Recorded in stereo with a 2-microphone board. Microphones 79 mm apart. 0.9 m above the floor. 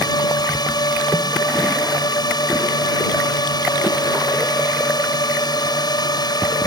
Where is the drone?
70° left (ahead or behind).